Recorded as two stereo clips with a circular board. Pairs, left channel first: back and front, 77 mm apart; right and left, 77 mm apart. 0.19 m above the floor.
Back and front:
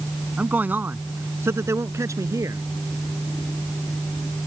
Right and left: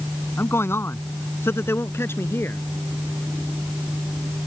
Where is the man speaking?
60° right; by 2.6 s 35° right.